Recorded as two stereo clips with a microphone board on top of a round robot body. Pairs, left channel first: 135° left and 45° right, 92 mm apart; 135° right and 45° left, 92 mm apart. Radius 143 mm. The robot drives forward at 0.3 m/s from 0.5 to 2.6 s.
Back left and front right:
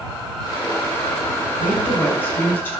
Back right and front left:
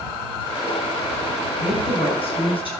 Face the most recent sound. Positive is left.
turn(degrees=-155)